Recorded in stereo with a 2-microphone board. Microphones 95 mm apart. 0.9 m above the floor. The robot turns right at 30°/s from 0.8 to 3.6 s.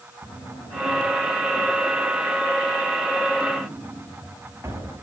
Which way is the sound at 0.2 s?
55° left (ahead or behind).